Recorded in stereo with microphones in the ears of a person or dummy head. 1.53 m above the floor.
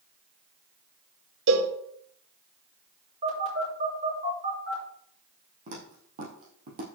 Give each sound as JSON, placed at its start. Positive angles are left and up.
{"t": 1.5, "sound": "a cowbell", "side_deg": -60, "distance_m": 1.9}
{"t": 3.2, "sound": "a phone buzzing", "side_deg": -40, "distance_m": 6.0}
{"t": 5.7, "sound": "footsteps", "side_deg": -45, "distance_m": 3.5}